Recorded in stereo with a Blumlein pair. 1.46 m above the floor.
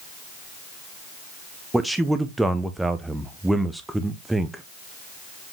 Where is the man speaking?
5° right, 0.8 m.